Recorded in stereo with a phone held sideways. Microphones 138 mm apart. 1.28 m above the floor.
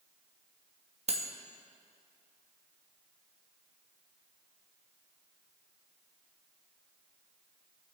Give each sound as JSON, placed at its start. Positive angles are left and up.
{"t": 1.1, "sound": "cutlery clinking", "side_deg": -50, "distance_m": 0.9}